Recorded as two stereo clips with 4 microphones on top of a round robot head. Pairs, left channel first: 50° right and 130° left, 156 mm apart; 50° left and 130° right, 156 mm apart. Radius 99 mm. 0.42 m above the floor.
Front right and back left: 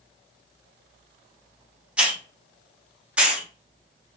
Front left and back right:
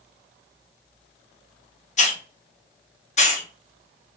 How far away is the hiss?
About 0.9 m.